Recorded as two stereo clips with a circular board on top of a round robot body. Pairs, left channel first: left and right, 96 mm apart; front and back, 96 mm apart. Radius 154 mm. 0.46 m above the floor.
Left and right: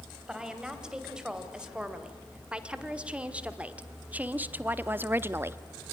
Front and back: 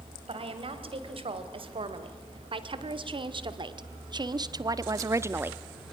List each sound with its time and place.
0.3 s a woman speaking: 175° right, 3 m; by 5.9 s 100° right, 0.9 m